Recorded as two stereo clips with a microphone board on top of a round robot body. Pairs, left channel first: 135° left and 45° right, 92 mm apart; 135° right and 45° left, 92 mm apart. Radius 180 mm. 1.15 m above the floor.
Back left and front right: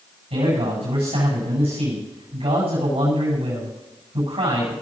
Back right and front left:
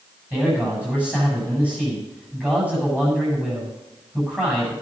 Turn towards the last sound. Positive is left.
turn(degrees=-35)